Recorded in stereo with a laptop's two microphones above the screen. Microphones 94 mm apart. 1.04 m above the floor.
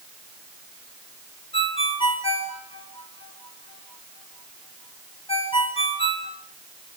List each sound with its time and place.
1.5 s a ringtone: 75° left (ahead or behind), 3 m